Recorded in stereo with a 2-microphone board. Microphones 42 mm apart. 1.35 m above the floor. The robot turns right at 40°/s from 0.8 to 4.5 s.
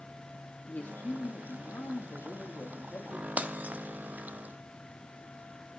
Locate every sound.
0.7 s a man speaking: 40° left, 2.5 m; by 3.3 s 140° left, 2.5 m
3.4 s breaking glass: 30° right (ahead or behind), 0.9 m; by 5.8 s 40° right (ahead or behind), 0.9 m